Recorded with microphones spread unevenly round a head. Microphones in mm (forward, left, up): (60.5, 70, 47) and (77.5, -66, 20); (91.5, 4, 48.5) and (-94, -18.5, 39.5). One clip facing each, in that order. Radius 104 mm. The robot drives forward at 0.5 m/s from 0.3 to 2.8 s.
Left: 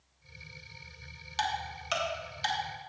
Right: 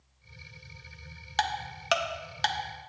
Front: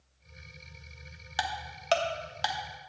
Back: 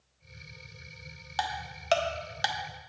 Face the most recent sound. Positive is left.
turn(degrees=-115)